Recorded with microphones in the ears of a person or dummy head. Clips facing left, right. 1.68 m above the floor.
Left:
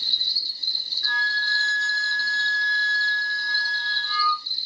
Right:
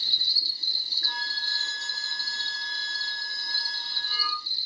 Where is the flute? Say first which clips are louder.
Left 8 dB; 45° right (ahead or behind), 0.6 m.